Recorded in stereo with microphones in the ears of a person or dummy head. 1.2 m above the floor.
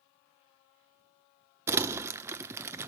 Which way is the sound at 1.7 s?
15° right (ahead or behind).